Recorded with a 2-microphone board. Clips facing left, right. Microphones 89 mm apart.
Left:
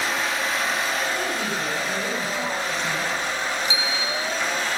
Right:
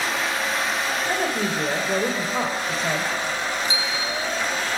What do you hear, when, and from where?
1.1 s a woman speaking: 45° right (ahead or behind), 3.5 m
3.6 s a bicycle bell: 35° right (ahead or behind), 6.5 m